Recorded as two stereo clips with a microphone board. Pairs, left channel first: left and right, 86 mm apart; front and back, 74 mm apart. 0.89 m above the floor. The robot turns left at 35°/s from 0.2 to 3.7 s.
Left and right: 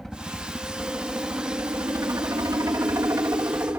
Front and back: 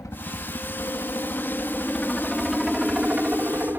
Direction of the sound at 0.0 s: Straight ahead.